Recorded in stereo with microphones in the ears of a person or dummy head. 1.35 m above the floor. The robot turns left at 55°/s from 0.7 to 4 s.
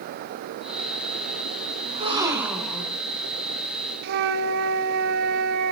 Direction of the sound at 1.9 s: 135° right.